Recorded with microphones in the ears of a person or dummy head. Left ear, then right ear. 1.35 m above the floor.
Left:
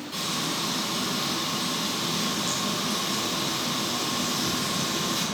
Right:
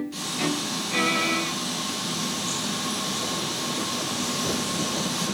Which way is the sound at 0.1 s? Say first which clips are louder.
Left 1 dB; 20° left (ahead or behind).